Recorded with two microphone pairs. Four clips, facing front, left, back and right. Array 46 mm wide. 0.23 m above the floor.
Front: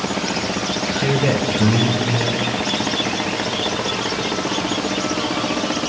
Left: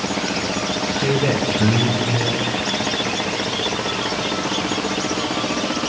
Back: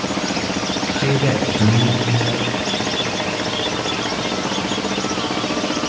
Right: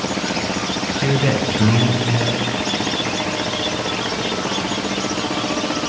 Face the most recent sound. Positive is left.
turn(degrees=-95)